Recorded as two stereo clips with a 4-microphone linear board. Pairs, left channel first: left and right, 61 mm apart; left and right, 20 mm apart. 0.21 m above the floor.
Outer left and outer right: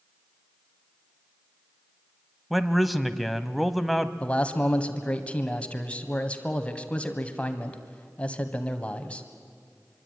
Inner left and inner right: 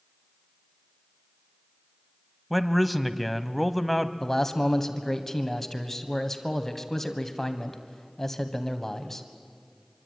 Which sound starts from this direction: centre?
A man speaking, at 2.5 s.